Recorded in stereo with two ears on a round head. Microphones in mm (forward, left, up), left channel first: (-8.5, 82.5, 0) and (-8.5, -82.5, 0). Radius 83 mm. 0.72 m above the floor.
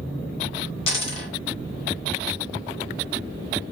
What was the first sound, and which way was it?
A dropped coin, 30° left (ahead or behind).